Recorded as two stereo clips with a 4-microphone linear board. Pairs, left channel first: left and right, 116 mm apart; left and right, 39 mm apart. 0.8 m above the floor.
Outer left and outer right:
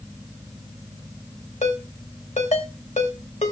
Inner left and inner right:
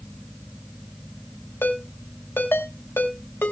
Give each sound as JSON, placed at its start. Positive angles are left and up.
{"t": 1.6, "sound": "a ringtone", "side_deg": 85, "distance_m": 2.5}